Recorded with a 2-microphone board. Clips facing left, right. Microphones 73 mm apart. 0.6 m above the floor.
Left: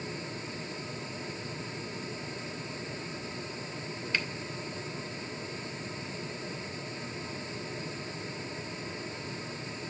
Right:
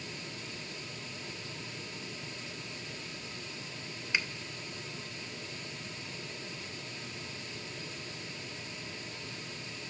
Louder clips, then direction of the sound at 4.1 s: Even; 15° right (ahead or behind).